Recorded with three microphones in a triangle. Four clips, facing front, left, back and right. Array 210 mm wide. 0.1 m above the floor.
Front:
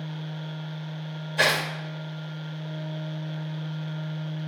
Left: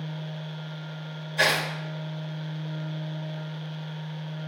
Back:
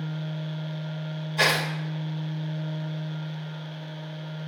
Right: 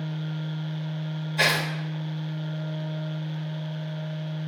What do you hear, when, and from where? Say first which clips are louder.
1.4 s tearing paper: left 1 dB, even; 5° right, 4 m